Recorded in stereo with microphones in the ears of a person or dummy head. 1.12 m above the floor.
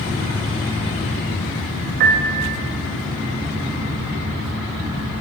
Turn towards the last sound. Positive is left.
turn(degrees=-50)  # may be behind; listen again after turning